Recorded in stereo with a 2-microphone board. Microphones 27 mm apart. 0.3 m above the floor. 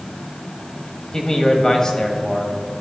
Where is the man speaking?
35° left (ahead or behind), 1.3 m.